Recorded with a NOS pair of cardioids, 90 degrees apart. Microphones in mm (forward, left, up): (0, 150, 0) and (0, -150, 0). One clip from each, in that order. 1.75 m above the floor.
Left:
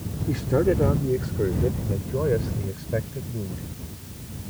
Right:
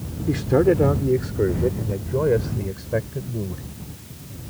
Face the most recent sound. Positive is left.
turn(degrees=-30)